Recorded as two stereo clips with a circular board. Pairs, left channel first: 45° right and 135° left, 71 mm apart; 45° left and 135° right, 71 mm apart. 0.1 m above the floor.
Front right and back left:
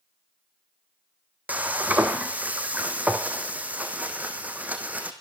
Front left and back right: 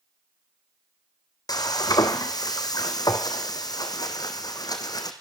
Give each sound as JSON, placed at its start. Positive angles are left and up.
{"t": 1.5, "sound": "frying", "azimuth_deg": 65, "distance_m": 2.5}